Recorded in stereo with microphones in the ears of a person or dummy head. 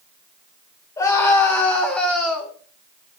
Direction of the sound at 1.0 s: 15° left (ahead or behind).